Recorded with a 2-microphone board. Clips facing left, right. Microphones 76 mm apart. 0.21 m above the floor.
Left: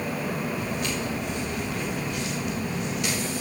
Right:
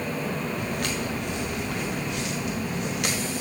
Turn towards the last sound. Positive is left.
turn(degrees=-80)